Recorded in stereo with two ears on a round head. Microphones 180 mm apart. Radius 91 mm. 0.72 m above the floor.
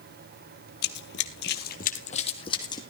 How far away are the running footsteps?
About 1.4 m.